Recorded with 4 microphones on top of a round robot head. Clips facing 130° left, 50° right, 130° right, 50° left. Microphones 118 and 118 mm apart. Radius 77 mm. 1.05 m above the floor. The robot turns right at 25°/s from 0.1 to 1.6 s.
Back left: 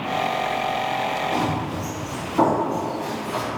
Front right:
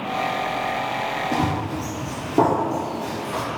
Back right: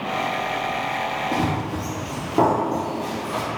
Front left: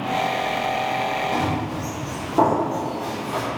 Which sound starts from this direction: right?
Running footsteps, at 1.3 s.